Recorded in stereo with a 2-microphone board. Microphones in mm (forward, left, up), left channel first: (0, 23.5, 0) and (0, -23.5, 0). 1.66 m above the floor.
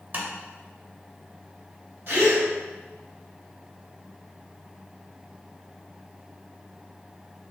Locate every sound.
0.1 s tapping: 40° right (ahead or behind), 1.0 m
2.1 s a gasp: 50° right (ahead or behind), 1.8 m